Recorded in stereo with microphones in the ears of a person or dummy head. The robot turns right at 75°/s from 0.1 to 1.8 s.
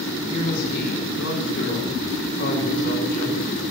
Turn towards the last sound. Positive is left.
turn(degrees=125)